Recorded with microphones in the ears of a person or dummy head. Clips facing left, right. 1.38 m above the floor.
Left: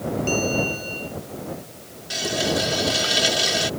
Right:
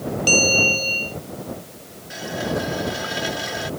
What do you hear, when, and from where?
0.3 s a bell: 70° right (ahead or behind)
2.1 s a running tap: 45° left (ahead or behind)